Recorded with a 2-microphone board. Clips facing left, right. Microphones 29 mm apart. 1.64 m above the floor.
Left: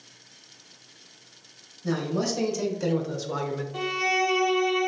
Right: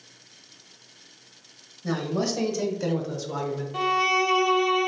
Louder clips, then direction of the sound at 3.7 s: Right 3 dB; 15° right (ahead or behind).